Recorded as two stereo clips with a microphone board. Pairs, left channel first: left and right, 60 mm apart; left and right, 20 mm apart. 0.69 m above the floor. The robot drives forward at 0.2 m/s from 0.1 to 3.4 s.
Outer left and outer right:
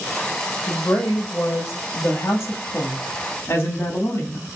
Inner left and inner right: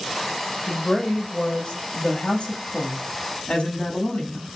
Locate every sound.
0.7 s a woman speaking: 45° left (ahead or behind), 0.8 m; by 4.5 s 35° left (ahead or behind), 1.0 m